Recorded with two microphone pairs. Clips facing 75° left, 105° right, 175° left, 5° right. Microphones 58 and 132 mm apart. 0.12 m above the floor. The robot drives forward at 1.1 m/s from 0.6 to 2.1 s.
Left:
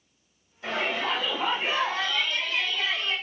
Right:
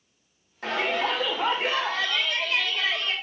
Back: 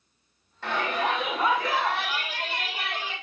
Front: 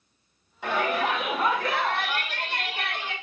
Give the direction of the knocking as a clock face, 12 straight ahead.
No knocking in this recording.